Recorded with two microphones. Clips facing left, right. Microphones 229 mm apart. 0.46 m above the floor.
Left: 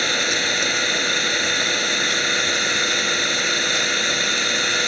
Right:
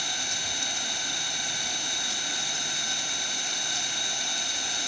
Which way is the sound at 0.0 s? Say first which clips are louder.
Left 15 dB; 80° left.